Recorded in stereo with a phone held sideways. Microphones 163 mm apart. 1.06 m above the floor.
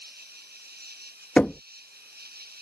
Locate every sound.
0.0 s an insect: 75° right (ahead or behind)
1.4 s knocking: 10° left (ahead or behind)